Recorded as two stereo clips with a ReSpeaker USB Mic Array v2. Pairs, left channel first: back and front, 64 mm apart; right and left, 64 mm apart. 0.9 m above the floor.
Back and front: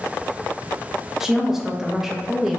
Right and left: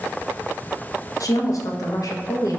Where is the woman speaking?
80° right, 0.5 m.